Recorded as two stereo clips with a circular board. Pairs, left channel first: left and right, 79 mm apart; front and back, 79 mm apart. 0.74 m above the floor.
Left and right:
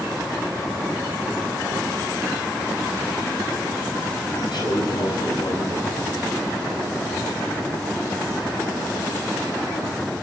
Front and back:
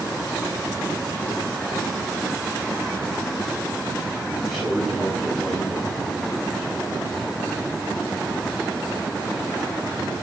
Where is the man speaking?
85° left, 6.5 m.